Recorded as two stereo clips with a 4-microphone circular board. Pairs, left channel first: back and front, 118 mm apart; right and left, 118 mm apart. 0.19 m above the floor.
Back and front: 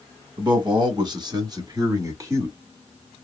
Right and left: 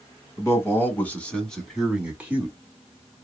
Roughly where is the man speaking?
Ahead right.